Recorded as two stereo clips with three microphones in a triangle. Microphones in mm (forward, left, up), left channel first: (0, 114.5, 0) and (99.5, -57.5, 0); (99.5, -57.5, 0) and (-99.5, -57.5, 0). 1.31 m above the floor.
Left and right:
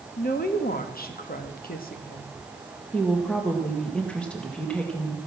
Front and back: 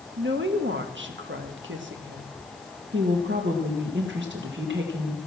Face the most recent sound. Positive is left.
turn(degrees=-155)